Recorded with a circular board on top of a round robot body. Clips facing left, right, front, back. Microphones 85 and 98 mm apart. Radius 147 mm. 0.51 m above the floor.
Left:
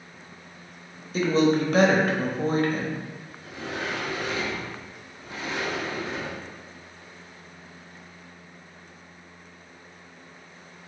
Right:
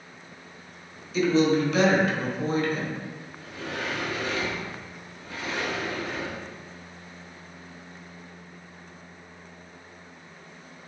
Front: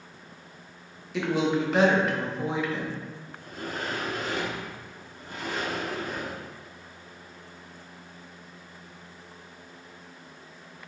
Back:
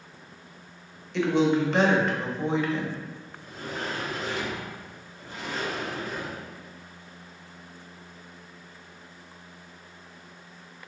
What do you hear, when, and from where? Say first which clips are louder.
1.1 s a woman speaking: even, back 3 dB; 80° left, 1.3 m
3.4 s a sliding door: left 1 dB, front 1 dB; 25° left, 1.2 m